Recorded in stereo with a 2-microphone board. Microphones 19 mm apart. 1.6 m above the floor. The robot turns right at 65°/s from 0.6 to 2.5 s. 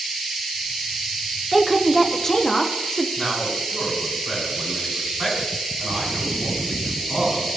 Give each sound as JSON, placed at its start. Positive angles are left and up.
{"t": 1.5, "sound": "a woman speaking", "azimuth_deg": -10, "distance_m": 0.6}
{"t": 3.2, "sound": "a man speaking", "side_deg": -15, "distance_m": 4.0}